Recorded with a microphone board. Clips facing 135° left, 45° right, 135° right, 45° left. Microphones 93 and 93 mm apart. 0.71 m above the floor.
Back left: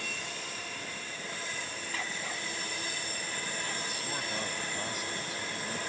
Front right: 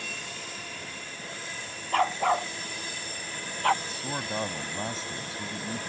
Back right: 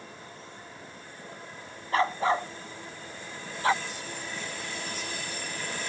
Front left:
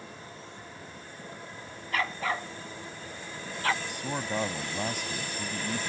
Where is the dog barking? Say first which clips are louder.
Front right 17 dB, back right 6 dB; 75° right; by 3.7 s 65° right.